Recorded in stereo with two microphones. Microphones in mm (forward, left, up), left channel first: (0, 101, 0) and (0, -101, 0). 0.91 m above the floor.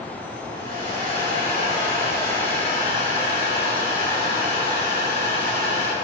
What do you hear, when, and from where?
0.5 s a hair dryer: 45° right (ahead or behind), 4 m